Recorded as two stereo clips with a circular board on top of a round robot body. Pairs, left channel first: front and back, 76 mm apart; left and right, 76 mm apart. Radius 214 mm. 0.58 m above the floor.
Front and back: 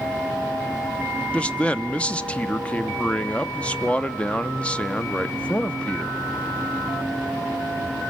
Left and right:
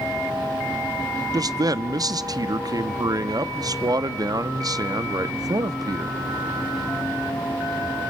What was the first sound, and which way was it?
A man speaking, 70° right.